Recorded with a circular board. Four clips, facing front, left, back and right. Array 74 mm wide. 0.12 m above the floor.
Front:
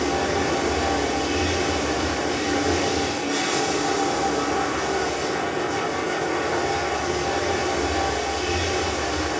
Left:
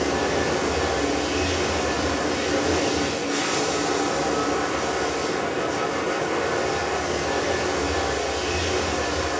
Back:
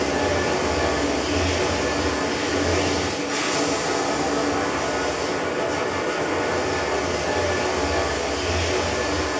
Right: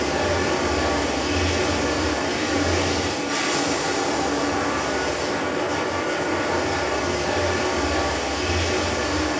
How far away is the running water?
About 5 m.